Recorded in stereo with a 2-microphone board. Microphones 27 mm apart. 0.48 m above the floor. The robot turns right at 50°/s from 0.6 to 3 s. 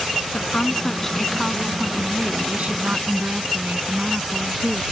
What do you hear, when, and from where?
0.3 s a woman speaking: 140° left; by 4.8 s 100° right